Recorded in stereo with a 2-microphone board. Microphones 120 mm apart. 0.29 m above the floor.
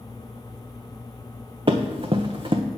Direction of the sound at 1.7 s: 45° right (ahead or behind).